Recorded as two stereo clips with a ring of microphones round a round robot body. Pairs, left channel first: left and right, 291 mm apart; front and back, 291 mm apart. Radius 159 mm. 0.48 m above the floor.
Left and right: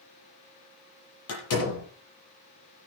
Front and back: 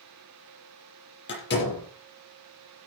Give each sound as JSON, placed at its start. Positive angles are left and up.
{"t": 1.3, "sound": "a door slam", "azimuth_deg": 50, "distance_m": 9.0}